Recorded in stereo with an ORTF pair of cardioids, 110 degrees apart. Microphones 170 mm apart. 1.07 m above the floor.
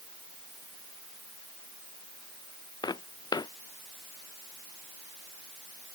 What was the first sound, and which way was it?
Footsteps, 25° left.